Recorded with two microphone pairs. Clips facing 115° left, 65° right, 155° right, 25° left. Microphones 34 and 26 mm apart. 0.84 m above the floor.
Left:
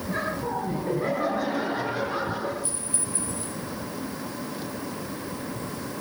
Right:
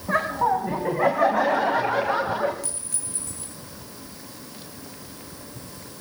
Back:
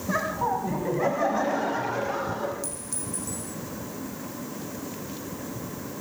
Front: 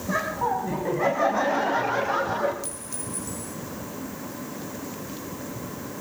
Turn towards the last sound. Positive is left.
turn(degrees=-50)